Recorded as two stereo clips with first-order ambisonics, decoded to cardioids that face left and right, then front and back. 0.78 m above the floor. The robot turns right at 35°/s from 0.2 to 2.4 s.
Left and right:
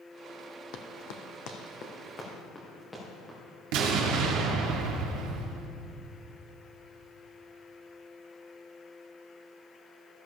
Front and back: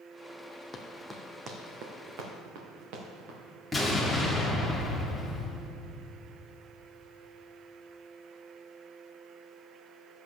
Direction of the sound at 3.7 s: 90° right.